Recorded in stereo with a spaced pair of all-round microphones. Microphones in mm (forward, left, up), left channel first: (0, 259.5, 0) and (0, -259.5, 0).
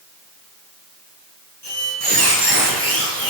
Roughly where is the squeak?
Right.